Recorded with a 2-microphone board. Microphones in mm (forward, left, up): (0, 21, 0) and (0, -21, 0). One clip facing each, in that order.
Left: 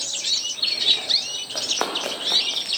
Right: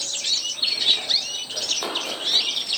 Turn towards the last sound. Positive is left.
turn(degrees=70)  # may be behind; listen again after turning